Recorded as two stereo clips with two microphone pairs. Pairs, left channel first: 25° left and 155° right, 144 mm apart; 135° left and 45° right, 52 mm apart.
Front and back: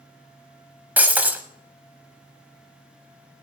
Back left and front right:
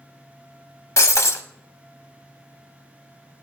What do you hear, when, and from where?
1.0 s breaking glass: 125° left, 0.8 m